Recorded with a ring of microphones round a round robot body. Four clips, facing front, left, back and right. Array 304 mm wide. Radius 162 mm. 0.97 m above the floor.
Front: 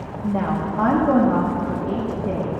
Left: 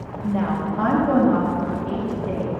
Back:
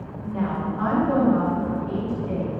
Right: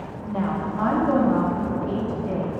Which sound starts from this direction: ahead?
A woman speaking, at 0.2 s.